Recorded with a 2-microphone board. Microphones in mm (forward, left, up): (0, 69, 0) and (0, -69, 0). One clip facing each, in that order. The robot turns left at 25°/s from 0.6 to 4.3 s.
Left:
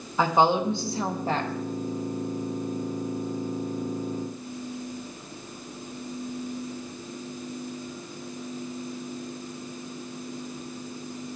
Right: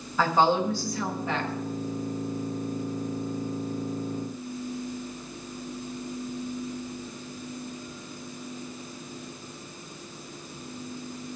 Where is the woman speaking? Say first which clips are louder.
Left 1 dB; 20° left (ahead or behind), 1.4 m; by 1.5 s 40° left (ahead or behind), 1.4 m.